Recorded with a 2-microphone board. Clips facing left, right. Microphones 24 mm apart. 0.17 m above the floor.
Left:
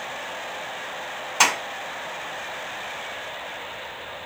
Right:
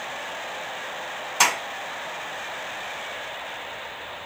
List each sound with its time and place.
1.4 s a clap: 5° left (ahead or behind), 1.1 m